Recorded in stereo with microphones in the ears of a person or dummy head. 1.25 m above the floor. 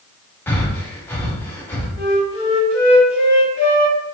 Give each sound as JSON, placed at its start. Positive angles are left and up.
{"t": 0.5, "sound": "breathing", "side_deg": 5, "distance_m": 0.6}
{"t": 2.0, "sound": "a flute", "side_deg": 60, "distance_m": 1.5}